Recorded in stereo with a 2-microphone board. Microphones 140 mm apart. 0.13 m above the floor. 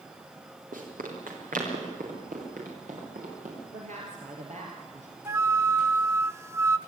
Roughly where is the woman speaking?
Right.